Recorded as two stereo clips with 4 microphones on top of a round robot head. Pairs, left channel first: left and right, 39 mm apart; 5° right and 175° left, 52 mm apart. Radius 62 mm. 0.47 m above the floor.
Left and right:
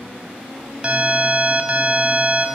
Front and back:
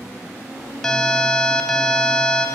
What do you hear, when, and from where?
0.8 s an alarm: 75° right, 0.8 m